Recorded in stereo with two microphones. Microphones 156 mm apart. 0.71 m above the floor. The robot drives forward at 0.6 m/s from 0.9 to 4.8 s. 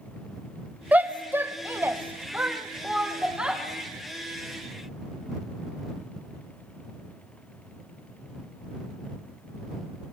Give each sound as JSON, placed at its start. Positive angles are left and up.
{"t": 0.9, "sound": "a shout", "side_deg": -10, "distance_m": 0.7}